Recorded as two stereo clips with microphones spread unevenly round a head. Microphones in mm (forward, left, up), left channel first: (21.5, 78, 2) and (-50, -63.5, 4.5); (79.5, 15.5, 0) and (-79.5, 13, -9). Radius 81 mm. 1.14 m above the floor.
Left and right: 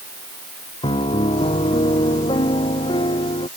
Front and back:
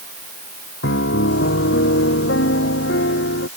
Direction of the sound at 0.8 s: Straight ahead.